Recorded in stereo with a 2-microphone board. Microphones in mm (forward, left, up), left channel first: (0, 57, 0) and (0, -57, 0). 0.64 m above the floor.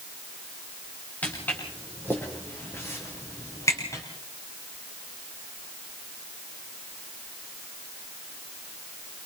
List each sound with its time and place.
1.2 s footsteps: 15° left (ahead or behind), 8.5 m; by 4.0 s 30° left (ahead or behind), 7 m